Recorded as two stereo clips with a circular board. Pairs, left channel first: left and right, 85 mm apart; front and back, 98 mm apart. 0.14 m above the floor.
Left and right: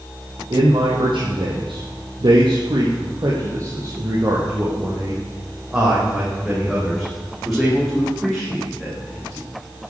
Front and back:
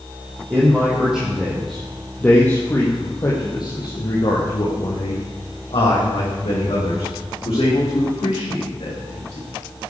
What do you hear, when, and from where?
0.5 s a man speaking: 105° right, 5 m; by 9.5 s 10° left, 10 m